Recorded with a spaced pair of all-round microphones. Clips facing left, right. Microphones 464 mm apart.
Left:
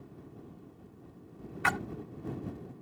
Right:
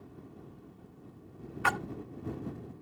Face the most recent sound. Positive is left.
turn(degrees=40)  # may be behind; listen again after turning